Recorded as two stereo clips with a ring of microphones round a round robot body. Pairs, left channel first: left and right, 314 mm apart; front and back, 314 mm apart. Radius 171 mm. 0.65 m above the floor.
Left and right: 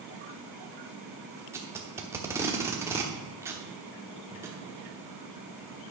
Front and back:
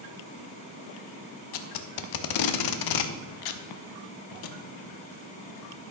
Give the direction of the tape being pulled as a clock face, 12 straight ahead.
12 o'clock.